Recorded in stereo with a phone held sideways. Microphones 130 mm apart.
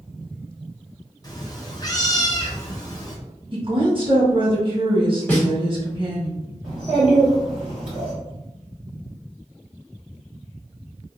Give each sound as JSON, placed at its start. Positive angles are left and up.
{"t": 1.2, "sound": "a cat meowing", "side_deg": 30, "distance_m": 0.7}
{"t": 3.5, "sound": "a woman speaking", "side_deg": -40, "distance_m": 1.8}
{"t": 5.3, "sound": "a snare drum", "side_deg": 15, "distance_m": 1.4}
{"t": 6.6, "sound": "a child speaking", "side_deg": -15, "distance_m": 1.5}